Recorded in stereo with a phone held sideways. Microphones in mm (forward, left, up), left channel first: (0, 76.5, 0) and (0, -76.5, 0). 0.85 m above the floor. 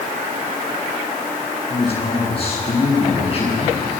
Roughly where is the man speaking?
Left.